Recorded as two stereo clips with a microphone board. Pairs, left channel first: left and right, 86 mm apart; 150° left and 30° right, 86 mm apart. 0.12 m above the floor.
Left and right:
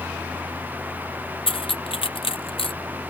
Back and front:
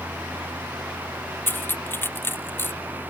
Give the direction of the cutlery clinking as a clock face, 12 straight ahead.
9 o'clock.